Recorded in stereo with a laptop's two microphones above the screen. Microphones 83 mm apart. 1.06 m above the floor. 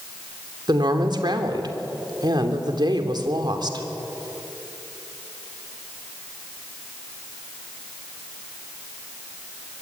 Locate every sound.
0.7 s a woman speaking: 60° right (ahead or behind), 3 m